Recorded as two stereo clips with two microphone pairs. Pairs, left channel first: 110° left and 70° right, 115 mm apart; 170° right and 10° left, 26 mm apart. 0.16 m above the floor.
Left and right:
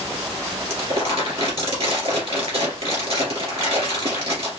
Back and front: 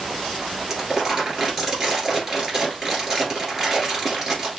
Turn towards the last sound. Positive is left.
turn(degrees=-55)